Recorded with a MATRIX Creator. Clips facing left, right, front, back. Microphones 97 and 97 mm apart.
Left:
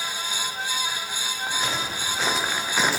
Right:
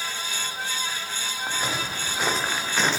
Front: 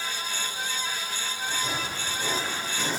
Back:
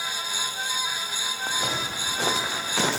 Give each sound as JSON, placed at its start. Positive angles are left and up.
{"t": 1.5, "sound": "footsteps", "azimuth_deg": -170, "distance_m": 1.9}